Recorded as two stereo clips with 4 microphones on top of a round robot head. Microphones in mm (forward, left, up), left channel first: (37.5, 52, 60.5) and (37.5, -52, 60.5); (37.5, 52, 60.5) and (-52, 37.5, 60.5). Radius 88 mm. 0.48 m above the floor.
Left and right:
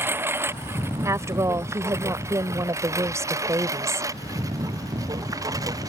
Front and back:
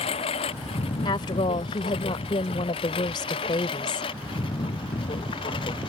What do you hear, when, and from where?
0.0 s a lawn mower: 20° right; by 5.9 s 35° right
1.1 s a woman speaking: 30° right